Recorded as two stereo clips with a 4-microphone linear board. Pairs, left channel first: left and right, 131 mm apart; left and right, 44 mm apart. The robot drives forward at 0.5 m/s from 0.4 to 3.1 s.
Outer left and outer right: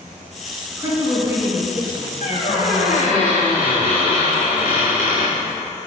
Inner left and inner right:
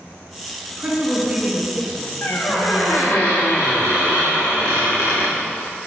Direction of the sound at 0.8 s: 20° right (ahead or behind).